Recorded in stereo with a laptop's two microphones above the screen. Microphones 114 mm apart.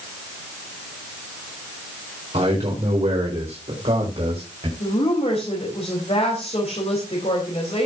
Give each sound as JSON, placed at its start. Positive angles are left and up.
{"t": 2.3, "sound": "a man speaking", "side_deg": -65, "distance_m": 4.5}
{"t": 4.8, "sound": "a woman speaking", "side_deg": 60, "distance_m": 4.0}